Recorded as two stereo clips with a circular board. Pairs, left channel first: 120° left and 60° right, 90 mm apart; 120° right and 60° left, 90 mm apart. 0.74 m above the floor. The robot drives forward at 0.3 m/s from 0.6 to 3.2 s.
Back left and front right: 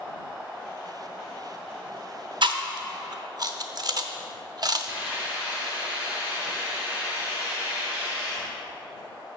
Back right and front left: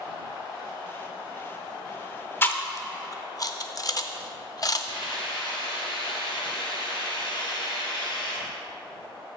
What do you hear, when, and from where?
2.4 s chewing: 60° right, 0.6 m; by 4.8 s 85° right, 0.5 m
4.9 s a hiss: 130° right, 2 m